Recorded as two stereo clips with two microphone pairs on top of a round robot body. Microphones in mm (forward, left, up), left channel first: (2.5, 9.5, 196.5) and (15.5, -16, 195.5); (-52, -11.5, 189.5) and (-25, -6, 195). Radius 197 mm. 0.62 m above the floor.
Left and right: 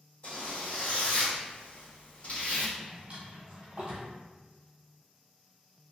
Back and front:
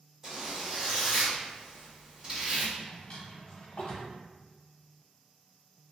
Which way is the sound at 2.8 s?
115° right.